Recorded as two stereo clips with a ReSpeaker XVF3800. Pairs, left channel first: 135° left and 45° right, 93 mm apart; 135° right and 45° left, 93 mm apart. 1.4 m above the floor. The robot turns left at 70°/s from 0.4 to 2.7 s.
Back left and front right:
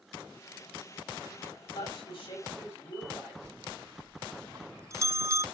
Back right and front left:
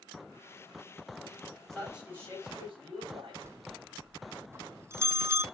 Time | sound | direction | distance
1.7 | a man speaking | 140° left | 7.5 m
3.4 | a bell | straight ahead | 0.6 m